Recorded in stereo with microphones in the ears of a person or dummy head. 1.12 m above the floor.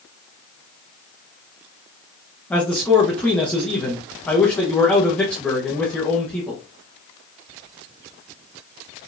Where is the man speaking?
5° left (ahead or behind), 1.0 m.